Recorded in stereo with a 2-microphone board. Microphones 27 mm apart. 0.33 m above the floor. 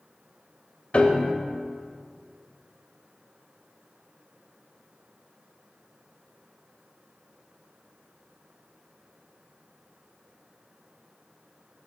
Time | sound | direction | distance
0.9 | a piano | 40° left (ahead or behind) | 0.5 m